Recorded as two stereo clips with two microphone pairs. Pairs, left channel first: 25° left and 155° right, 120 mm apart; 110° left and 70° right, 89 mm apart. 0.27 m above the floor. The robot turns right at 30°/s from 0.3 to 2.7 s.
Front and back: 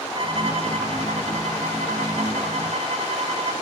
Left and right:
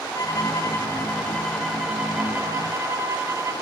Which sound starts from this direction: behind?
A violin, at 0.1 s.